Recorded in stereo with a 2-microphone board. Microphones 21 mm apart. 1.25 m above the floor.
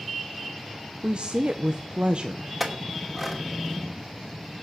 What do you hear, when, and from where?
1.0 s a woman speaking: 55° right (ahead or behind), 0.8 m
2.6 s a clink: 10° right (ahead or behind), 2.5 m